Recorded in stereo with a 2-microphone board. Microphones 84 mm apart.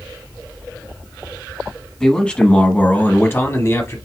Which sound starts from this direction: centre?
A man speaking, at 2.0 s.